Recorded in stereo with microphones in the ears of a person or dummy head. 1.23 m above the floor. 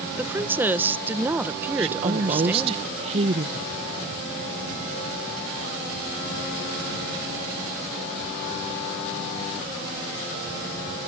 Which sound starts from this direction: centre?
A woman speaking, at 0.2 s.